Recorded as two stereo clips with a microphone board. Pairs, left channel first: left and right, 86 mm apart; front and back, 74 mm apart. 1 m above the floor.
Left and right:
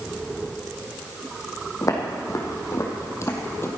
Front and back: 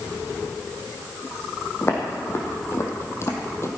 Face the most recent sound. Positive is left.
turn(degrees=40)